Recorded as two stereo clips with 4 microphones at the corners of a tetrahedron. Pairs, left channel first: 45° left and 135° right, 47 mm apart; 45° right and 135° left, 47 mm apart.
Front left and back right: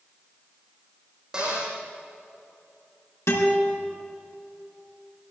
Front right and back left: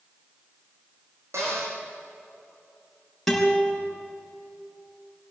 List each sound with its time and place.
1.3 s a cupboard door: 150° left, 6.5 m
3.3 s a guitar: 40° left, 5 m